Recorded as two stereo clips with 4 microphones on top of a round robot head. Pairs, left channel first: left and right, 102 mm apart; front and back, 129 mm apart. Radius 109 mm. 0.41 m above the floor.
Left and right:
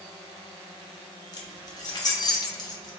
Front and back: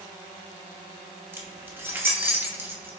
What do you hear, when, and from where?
1.3 s keys jangling: 115° left, 1.0 m